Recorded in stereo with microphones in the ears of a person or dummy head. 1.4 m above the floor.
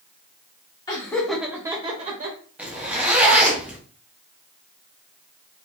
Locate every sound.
0.9 s laughter: 25° left (ahead or behind), 1.1 m; by 2.4 s 45° right (ahead or behind), 1.2 m
2.6 s a zipper: 10° right (ahead or behind), 0.6 m